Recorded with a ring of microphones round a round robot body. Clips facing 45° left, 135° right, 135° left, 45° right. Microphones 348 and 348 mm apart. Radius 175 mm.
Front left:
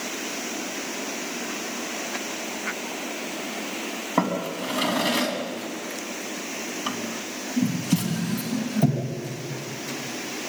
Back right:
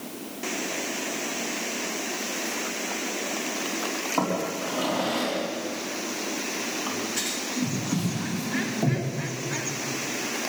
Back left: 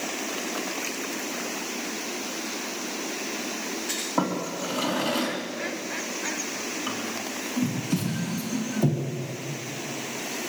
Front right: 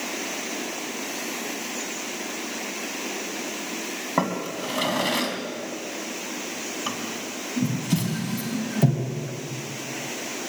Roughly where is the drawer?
Ahead.